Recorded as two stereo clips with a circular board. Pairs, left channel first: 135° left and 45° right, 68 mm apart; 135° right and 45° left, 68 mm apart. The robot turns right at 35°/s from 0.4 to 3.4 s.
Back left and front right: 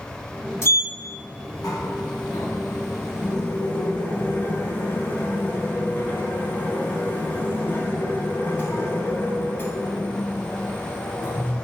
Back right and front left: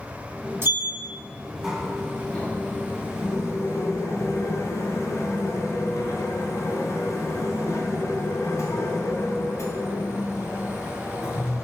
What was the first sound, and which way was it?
A sliding door, 90° left.